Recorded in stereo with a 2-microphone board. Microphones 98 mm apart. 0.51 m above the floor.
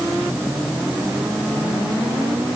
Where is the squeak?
No squeak in this recording.